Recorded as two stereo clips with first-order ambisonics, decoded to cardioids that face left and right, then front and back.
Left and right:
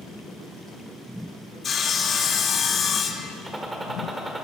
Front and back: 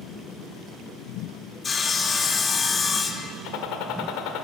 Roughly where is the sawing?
Ahead left.